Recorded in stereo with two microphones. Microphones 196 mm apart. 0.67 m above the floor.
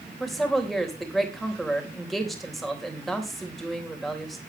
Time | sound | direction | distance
0.2 | a woman speaking | centre (ahead or behind) | 3.5 m